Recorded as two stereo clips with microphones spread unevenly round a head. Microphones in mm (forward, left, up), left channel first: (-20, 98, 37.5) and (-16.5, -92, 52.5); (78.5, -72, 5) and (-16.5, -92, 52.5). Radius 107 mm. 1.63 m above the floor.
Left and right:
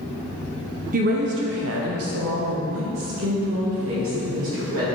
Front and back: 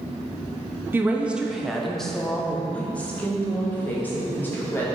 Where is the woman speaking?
125° right, 0.6 m; by 4.9 s 65° right, 2.5 m.